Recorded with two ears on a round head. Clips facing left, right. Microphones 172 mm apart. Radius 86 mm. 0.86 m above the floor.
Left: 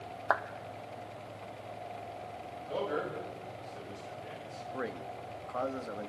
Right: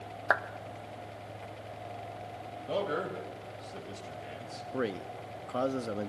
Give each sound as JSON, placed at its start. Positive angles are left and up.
{"t": 0.3, "sound": "a clap", "side_deg": -20, "distance_m": 0.7}
{"t": 2.7, "sound": "a man speaking", "side_deg": -75, "distance_m": 5.5}
{"t": 4.7, "sound": "a man speaking", "side_deg": -40, "distance_m": 0.9}